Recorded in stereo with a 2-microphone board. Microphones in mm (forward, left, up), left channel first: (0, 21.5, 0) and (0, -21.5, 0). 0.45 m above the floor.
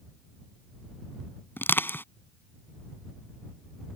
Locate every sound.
1.6 s crushing: 60° left (ahead or behind)